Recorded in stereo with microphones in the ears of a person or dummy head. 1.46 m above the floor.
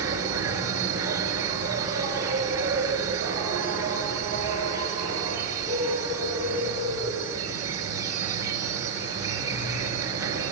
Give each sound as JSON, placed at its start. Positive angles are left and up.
{"t": 0.0, "sound": "an insect", "side_deg": -15, "distance_m": 7.5}